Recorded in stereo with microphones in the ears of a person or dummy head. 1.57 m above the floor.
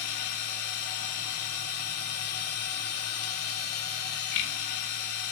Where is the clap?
I don't hear a clap.